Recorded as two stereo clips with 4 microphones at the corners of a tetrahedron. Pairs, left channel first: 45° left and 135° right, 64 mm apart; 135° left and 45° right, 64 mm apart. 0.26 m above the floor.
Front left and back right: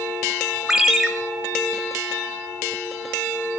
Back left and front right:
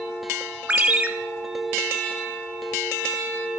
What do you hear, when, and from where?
0.7 s a ringtone: 65° right, 0.9 m